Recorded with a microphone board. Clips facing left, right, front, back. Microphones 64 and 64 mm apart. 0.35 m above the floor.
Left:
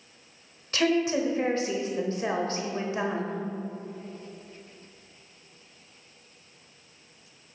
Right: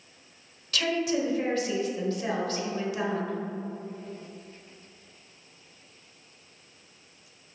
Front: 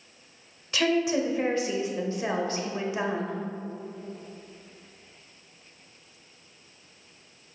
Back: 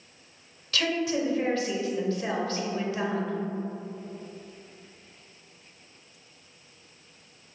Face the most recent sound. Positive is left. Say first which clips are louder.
# left 3 dB, front 3 dB
turn(degrees=55)